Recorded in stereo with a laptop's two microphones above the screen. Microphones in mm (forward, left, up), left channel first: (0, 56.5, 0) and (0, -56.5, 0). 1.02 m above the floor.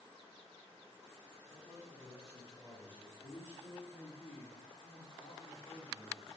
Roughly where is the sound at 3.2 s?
Left.